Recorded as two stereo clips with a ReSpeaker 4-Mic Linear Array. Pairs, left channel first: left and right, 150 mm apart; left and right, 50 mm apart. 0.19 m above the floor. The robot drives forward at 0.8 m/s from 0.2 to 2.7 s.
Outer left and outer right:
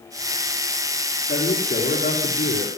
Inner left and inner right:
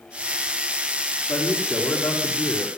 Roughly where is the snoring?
No snoring in this recording.